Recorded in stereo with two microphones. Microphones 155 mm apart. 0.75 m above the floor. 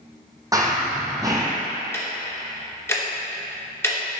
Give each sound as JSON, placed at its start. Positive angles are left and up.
{"t": 0.5, "sound": "running footsteps", "side_deg": -25, "distance_m": 1.4}
{"t": 1.9, "sound": "ticking", "side_deg": 15, "distance_m": 1.0}